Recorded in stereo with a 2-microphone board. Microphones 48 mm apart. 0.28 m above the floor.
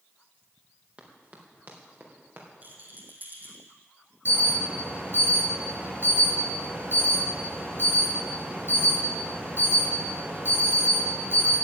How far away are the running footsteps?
About 3.5 m.